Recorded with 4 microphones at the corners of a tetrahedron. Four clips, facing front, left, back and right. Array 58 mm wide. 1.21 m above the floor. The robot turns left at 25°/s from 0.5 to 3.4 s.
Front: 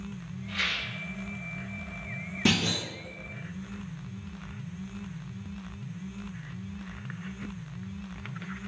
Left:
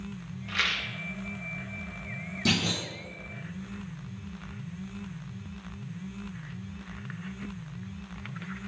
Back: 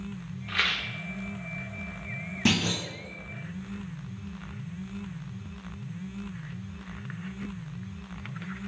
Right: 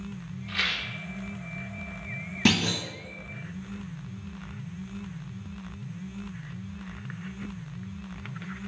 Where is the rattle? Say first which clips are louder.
Even, back 3 dB; 165° left, 0.8 m; by 0.9 s 155° left, 0.8 m.